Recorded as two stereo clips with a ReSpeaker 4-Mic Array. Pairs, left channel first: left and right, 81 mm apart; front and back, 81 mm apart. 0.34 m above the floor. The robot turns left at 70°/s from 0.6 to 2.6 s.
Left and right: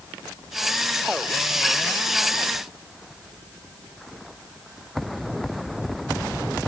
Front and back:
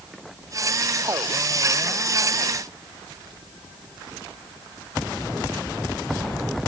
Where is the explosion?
I don't hear an explosion.